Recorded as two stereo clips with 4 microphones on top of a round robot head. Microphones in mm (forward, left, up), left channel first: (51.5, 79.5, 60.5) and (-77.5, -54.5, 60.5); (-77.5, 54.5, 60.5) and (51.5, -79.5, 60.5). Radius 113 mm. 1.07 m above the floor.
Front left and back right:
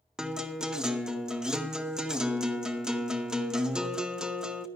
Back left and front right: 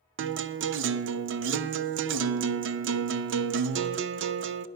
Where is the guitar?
50° right, 0.5 m.